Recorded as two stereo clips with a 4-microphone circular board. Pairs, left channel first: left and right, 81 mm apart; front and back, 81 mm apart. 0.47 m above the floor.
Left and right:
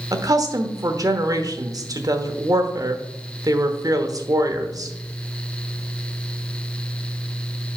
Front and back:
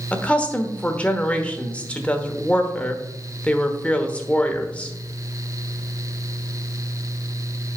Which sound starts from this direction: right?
A woman speaking, at 0.1 s.